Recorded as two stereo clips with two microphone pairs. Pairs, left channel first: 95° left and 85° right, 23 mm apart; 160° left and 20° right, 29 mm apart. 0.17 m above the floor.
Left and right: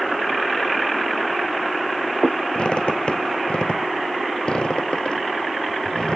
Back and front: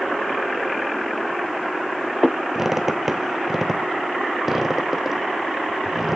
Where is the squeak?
55° left, 1.3 m.